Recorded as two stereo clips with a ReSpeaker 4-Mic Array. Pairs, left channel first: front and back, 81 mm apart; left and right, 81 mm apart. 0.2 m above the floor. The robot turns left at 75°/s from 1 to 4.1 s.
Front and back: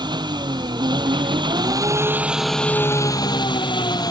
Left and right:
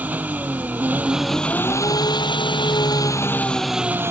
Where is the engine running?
160° right; by 4.1 s 35° right.